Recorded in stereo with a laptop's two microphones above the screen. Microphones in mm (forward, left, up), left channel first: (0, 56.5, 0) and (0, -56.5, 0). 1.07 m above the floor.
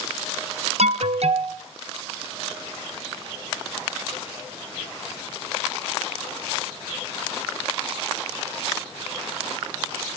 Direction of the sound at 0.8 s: 65° right (ahead or behind).